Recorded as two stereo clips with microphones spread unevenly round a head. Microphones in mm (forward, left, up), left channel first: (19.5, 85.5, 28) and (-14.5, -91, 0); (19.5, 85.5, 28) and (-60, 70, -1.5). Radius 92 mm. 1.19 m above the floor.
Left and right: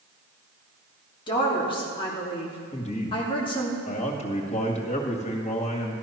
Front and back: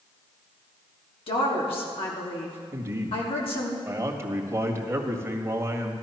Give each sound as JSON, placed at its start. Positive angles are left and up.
{"t": 1.3, "sound": "a woman speaking", "azimuth_deg": 15, "distance_m": 3.0}
{"t": 2.7, "sound": "a man speaking", "azimuth_deg": 135, "distance_m": 2.0}